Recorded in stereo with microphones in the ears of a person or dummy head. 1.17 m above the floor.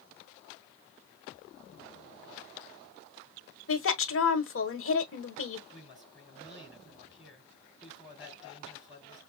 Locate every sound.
3.7 s a woman speaking: 60° left (ahead or behind), 1.2 m
5.7 s a woman speaking: centre (ahead or behind), 4.5 m